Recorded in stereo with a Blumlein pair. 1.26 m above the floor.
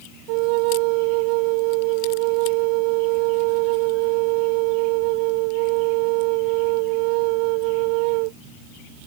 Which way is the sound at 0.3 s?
45° right.